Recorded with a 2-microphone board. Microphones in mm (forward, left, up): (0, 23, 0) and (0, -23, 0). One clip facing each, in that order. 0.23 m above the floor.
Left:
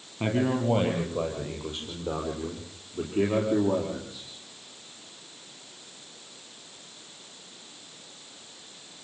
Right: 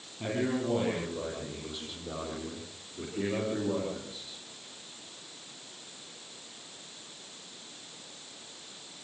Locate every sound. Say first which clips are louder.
0.2 s a man speaking: left 5 dB; 50° left (ahead or behind), 5 m; by 4.3 s 70° left (ahead or behind), 6.5 m